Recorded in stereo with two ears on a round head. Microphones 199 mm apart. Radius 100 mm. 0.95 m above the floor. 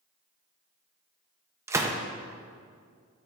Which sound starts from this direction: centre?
A gunshot, at 1.7 s.